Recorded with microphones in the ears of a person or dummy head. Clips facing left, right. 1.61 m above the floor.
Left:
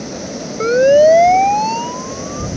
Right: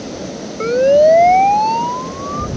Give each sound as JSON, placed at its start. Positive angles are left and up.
{"t": 0.6, "sound": "a siren", "side_deg": 15}